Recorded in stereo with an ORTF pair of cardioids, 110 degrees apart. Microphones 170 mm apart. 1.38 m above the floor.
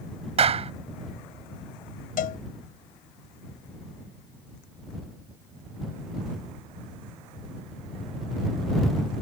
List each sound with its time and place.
0.4 s a clap: 40° right
2.2 s a cowbell: 60° left